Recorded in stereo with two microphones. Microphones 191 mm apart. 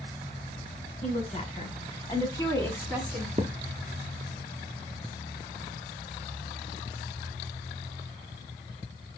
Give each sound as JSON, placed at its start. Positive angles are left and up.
{"t": 1.0, "sound": "a woman speaking", "side_deg": 40, "distance_m": 1.9}
{"t": 3.4, "sound": "a thud", "side_deg": -40, "distance_m": 0.6}